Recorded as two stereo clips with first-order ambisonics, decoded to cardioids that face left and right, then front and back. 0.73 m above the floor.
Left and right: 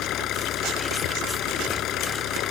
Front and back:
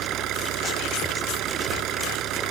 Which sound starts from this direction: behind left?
An engine running, at 0.0 s.